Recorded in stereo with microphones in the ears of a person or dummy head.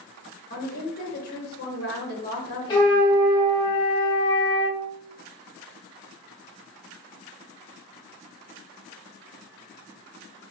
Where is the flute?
20° left (ahead or behind), 0.9 m.